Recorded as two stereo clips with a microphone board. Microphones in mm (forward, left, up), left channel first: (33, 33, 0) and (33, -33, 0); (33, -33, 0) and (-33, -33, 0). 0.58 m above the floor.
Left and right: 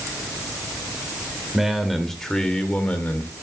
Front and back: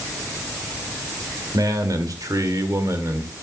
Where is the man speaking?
175° right, 2 m; by 3.3 s 145° left, 1.8 m.